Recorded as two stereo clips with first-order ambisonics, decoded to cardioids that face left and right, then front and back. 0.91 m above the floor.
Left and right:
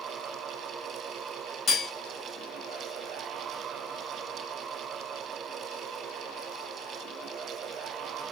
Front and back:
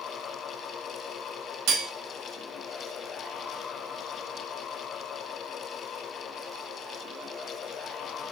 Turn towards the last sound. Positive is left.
turn(degrees=155)